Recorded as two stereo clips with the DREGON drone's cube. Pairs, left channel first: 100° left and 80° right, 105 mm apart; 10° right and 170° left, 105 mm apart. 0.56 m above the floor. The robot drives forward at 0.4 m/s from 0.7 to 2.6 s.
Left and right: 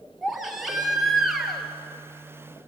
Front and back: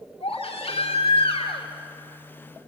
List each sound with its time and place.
0.2 s a baby crying: 10° left, 3 m